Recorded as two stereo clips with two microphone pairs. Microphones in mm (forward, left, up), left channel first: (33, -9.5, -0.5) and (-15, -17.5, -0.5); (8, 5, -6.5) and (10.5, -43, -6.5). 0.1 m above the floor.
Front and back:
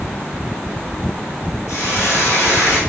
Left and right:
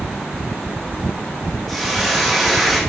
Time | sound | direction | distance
1.7 | a hiss | 5° left | 4 m